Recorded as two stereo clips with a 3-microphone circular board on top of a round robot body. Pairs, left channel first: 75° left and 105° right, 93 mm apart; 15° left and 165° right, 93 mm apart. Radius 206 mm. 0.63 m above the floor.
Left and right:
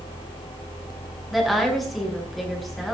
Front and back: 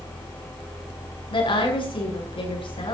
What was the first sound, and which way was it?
A woman speaking, 15° right.